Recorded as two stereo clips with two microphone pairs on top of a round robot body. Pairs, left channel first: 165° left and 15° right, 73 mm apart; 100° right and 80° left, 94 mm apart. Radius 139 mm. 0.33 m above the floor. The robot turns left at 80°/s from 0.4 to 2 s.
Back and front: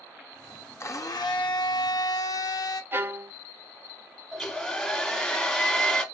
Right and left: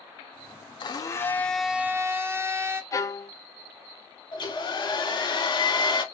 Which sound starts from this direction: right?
A hair dryer, at 4.3 s.